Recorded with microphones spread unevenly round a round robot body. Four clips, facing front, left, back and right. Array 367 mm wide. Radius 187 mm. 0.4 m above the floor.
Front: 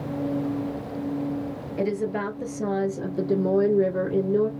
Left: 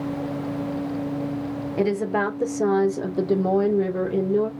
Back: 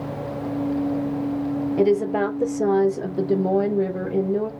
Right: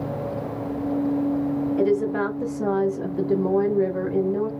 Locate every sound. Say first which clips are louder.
1.8 s a woman speaking: left 1 dB, back 6 dB; 150° left, 1.5 m; by 4.5 s 20° left, 1.4 m